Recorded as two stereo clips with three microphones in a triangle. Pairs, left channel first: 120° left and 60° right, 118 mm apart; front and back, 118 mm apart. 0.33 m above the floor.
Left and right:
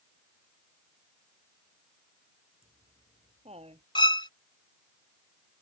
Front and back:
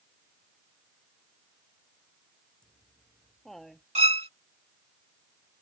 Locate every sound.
2.6 s laughter: 85° right; by 3.9 s 90° right
4.0 s a violin: 165° left